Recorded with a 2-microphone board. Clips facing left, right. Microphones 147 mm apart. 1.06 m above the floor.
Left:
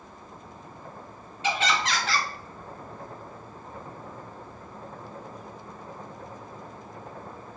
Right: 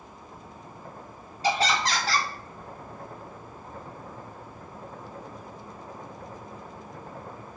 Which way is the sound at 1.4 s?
40° right (ahead or behind).